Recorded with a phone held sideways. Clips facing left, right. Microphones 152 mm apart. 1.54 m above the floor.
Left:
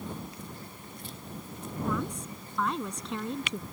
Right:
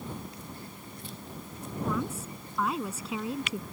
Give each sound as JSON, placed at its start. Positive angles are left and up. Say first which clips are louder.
{"t": 1.8, "sound": "a woman speaking", "louder": "even", "side_deg": -5}